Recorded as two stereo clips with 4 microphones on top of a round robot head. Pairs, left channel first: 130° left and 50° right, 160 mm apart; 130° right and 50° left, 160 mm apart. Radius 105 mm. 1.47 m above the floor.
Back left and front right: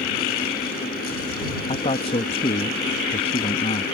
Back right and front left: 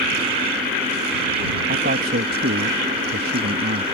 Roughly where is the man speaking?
Left.